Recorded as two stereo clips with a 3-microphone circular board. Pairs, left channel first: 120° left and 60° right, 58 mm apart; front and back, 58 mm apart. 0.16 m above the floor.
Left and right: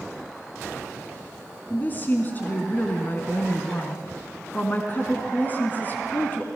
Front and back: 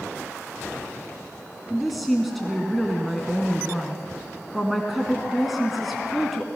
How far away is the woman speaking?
About 1.6 m.